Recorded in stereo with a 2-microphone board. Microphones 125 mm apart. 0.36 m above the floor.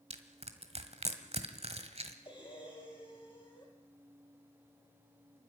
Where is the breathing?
35° left (ahead or behind), 4 m.